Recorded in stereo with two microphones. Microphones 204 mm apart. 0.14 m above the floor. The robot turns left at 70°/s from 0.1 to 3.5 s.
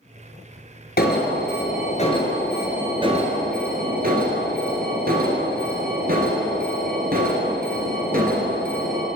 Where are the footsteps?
No footsteps in this recording.